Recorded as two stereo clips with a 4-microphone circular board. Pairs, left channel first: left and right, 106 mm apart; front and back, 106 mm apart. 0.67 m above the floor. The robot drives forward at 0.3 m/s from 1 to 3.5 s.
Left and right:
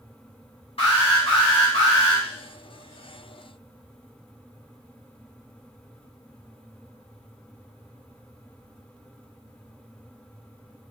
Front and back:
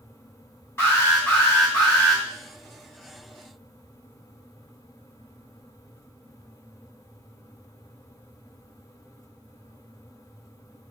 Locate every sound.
0.8 s an alarm: 65° left, 1.4 m; by 2.2 s 80° left, 1.3 m